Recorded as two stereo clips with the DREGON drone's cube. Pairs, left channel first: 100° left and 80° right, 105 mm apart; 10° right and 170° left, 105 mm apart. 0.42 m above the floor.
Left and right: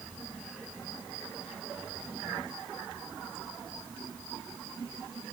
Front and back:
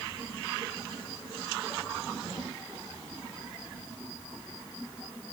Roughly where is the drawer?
No drawer in this recording.